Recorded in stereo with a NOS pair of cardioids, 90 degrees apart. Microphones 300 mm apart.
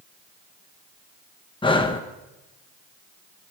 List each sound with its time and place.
1.6 s breathing: 15° left, 1.5 m